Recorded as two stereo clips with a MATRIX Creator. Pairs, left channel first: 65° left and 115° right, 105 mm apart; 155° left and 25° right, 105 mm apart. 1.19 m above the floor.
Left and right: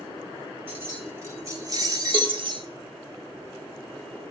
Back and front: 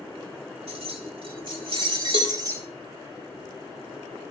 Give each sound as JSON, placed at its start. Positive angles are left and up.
{"t": 0.7, "sound": "keys jangling", "azimuth_deg": -40, "distance_m": 2.0}
{"t": 2.1, "sound": "a cowbell", "azimuth_deg": -40, "distance_m": 1.7}